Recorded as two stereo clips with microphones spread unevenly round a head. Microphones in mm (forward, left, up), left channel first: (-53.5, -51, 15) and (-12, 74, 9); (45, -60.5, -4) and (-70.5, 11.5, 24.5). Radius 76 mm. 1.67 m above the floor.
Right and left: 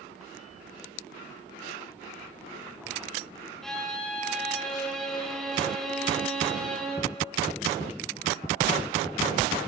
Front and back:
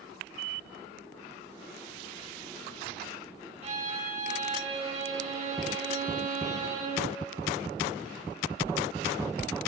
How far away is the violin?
About 2 m.